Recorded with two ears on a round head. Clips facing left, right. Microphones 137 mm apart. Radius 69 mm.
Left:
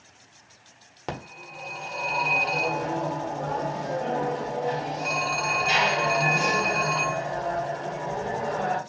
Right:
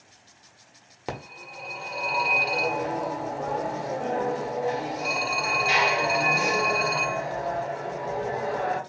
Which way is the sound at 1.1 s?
5° right (ahead or behind).